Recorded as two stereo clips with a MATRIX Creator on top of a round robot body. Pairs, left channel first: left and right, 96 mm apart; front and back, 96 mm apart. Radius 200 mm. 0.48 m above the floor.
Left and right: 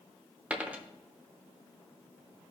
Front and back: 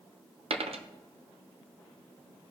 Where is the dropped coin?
165° right, 0.8 m.